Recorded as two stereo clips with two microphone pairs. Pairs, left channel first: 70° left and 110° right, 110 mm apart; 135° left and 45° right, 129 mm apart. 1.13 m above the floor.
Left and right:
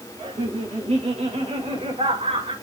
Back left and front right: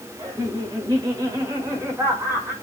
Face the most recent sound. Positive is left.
turn(degrees=-120)